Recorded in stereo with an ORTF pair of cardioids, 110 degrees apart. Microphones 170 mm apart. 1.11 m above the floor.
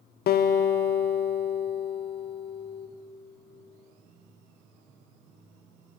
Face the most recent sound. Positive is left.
turn(degrees=65)